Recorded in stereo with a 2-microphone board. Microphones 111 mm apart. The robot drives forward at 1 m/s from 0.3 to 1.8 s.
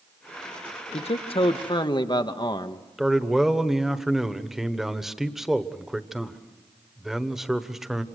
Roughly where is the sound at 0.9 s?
Left.